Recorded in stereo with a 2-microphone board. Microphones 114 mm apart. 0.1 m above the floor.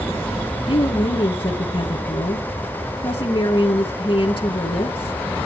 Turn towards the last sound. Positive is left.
turn(degrees=45)  # may be behind; listen again after turning